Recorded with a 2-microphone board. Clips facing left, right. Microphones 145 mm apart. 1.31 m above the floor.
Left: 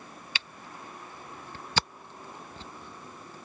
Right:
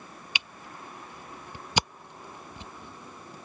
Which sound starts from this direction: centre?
A camera shutter, at 0.3 s.